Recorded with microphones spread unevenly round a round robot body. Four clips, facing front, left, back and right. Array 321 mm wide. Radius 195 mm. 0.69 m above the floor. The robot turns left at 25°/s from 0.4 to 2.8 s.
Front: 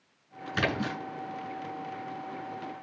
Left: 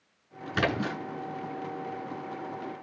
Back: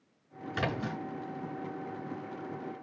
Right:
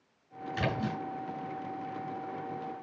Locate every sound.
0.5 s a splash: 80° left, 7.5 m; by 1.0 s 70° left, 7.5 m